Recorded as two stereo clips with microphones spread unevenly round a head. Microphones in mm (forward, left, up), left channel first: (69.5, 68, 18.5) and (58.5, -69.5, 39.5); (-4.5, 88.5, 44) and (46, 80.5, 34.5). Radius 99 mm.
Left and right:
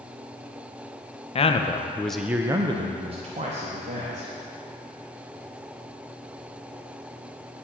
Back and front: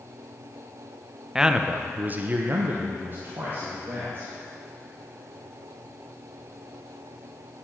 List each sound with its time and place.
1.4 s a man speaking: 60° left, 0.8 m; by 4.3 s 60° right, 1.7 m